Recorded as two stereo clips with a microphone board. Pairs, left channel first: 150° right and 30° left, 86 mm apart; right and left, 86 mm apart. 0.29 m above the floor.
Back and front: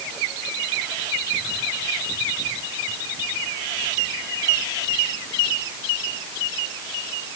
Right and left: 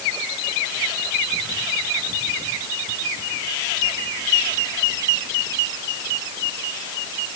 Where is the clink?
No clink in this recording.